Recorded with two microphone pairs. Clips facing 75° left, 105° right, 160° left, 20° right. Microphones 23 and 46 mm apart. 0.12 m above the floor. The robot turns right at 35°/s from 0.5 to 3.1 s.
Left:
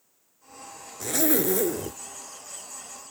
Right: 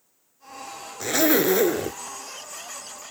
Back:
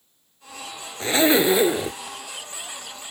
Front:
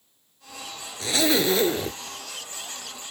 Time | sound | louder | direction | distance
1.0 | a zipper | right 5 dB, back 4 dB | 150° right | ?